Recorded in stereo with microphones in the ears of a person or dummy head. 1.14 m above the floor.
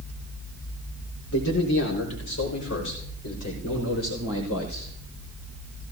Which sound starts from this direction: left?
A man speaking, at 1.3 s.